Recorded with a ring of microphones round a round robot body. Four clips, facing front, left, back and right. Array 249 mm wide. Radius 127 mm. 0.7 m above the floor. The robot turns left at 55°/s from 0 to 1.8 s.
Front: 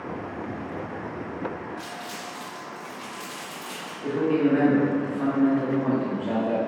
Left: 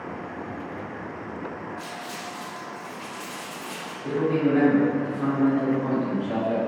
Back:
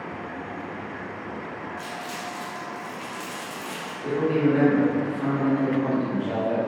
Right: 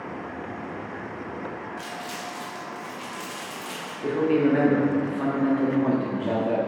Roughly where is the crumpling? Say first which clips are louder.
Right 1 dB, back 2 dB; right.